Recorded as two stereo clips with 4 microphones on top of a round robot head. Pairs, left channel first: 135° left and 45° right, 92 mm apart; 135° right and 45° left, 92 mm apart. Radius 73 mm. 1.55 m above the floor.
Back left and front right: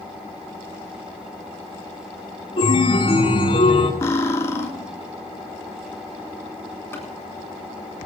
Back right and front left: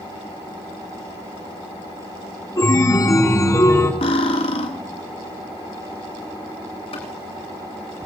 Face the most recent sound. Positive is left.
turn(degrees=-160)